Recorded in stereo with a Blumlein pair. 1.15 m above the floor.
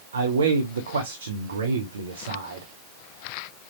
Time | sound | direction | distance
0.1 | a man speaking | 65° right | 0.7 m